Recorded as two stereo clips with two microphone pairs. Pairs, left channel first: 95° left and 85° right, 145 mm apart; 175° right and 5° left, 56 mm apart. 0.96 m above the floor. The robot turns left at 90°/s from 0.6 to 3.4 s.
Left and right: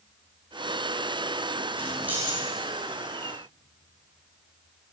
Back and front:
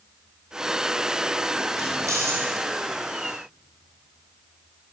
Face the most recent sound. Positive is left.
turn(degrees=-125)